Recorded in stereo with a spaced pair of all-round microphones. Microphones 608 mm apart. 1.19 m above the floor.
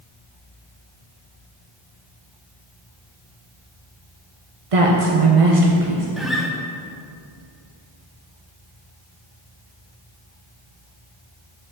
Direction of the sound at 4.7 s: 60° right (ahead or behind).